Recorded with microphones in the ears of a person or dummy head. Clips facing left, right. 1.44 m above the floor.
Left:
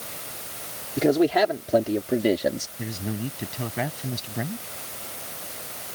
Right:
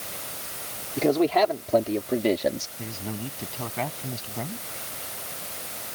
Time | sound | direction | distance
1.0 | a man speaking | 15° left (ahead or behind) | ?
2.8 | a man speaking | 25° left (ahead or behind) | ?